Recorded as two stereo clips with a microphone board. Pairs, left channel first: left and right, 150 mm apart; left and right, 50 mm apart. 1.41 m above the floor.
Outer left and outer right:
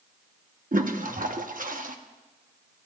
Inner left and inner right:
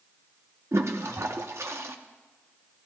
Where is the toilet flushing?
65° right (ahead or behind), 0.9 m.